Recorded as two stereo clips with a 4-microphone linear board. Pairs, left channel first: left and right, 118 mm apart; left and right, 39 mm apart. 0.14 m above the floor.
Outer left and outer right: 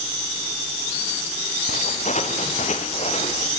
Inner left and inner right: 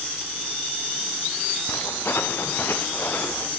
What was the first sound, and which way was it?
Footsteps, 90° left.